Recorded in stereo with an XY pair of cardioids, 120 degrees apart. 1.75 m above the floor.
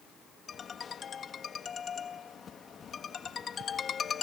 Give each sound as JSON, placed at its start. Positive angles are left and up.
{"t": 0.5, "sound": "a ringtone", "azimuth_deg": 35}